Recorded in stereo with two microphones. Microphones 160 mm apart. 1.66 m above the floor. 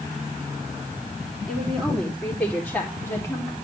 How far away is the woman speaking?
About 3.5 m.